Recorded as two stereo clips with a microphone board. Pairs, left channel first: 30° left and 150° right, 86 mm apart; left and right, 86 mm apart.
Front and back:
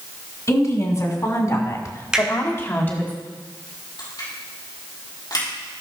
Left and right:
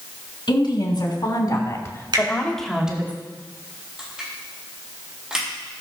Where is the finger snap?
70° right, 4 m.